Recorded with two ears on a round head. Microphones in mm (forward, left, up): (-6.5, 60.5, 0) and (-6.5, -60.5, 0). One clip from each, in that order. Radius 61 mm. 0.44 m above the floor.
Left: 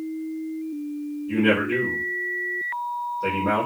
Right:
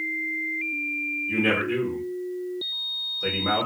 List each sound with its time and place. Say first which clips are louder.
1.3 s a man speaking: left 4 dB; 20° right (ahead or behind), 1.4 m